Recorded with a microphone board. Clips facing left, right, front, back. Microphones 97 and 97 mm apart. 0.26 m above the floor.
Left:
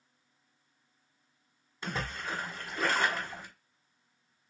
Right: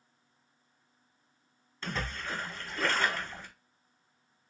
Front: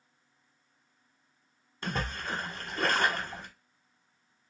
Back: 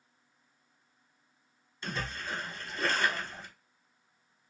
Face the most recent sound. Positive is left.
turn(degrees=15)